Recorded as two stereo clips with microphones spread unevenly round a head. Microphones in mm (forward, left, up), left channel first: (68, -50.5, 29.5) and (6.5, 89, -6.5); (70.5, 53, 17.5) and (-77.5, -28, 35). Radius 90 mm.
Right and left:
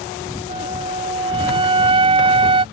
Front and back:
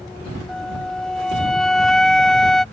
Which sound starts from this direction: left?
A flute, at 0.5 s.